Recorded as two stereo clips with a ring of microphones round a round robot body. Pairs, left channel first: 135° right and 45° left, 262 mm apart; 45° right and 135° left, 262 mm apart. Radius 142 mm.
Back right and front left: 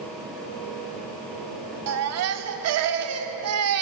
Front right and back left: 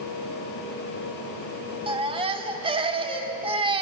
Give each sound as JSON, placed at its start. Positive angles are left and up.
{"t": 1.9, "sound": "a baby crying", "azimuth_deg": 65, "distance_m": 1.2}